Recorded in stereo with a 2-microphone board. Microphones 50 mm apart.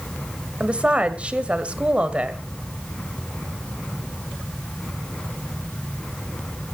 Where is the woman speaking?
25° right (ahead or behind), 1.7 m.